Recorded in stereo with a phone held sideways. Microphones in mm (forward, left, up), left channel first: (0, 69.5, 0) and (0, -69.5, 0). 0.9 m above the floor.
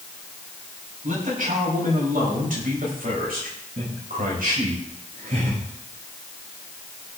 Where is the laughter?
50° right (ahead or behind), 8 m.